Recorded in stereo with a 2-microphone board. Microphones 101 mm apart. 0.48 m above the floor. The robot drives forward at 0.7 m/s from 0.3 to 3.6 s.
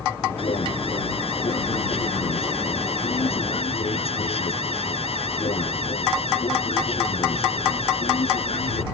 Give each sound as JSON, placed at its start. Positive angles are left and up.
{"t": 0.4, "sound": "an alarm", "side_deg": 70}